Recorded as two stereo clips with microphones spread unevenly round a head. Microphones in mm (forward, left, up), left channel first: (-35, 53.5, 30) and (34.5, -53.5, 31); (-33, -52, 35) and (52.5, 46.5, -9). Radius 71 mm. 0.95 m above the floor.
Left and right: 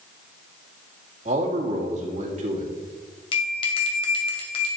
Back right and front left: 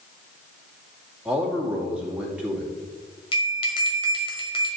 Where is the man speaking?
25° right, 2 m.